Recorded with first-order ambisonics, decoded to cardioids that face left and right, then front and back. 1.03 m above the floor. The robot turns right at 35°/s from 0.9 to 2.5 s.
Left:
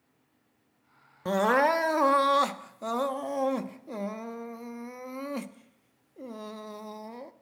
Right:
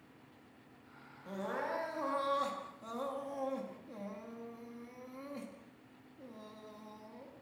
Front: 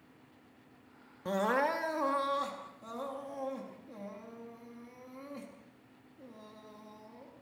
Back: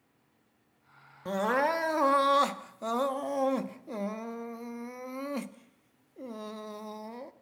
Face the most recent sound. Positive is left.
turn(degrees=135)